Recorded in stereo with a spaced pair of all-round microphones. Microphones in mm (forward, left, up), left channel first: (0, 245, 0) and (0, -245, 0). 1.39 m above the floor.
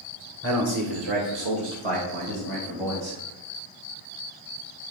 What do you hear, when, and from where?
0.4 s a man speaking: 25° right (ahead or behind), 1.2 m; by 3.2 s 75° right (ahead or behind), 2.5 m